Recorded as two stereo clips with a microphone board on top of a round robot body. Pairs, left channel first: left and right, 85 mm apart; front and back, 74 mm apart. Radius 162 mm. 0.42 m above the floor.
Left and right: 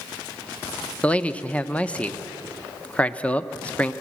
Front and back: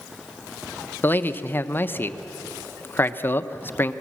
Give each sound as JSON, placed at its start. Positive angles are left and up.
{"t": 1.0, "sound": "a man speaking", "azimuth_deg": 30, "distance_m": 0.9}